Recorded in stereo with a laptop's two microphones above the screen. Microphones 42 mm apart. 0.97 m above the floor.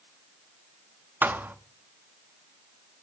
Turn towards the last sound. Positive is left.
turn(degrees=-50)  # may be behind; listen again after turning